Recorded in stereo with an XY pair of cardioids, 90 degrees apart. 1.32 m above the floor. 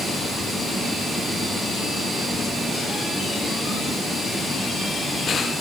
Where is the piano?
No piano in this recording.